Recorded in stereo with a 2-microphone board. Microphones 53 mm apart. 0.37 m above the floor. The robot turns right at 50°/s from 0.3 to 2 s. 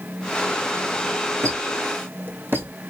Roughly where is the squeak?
Right.